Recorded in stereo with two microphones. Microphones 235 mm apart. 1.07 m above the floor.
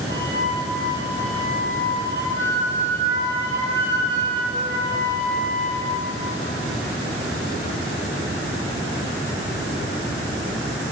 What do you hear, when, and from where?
0.1 s a flute: 55° left (ahead or behind), 1.5 m